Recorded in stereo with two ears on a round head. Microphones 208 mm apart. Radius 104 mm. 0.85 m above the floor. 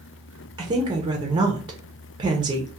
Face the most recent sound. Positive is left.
turn(degrees=-20)  # may be behind; listen again after turning